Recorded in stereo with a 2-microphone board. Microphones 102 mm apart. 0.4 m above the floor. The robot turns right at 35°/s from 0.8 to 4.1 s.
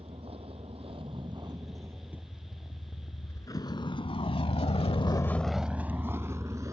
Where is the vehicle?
65° right (ahead or behind); by 6.7 s 30° right (ahead or behind).